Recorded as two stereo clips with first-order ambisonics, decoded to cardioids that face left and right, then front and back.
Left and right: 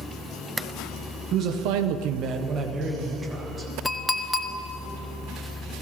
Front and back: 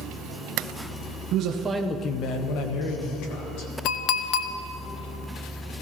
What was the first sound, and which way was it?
A man speaking, 135° right.